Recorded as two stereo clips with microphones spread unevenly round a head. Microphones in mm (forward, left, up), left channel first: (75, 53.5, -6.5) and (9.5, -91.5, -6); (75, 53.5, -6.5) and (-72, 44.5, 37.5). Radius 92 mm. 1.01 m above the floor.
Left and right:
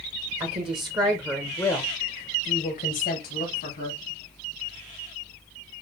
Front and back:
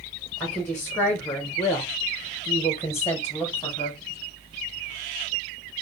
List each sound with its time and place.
0.4 s a woman speaking: 70° right, 1.2 m; by 4.0 s 70° left, 1.8 m